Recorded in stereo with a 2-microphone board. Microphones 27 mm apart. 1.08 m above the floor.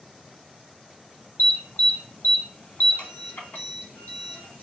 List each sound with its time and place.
1.4 s an alarm: 70° left (ahead or behind), 2.5 m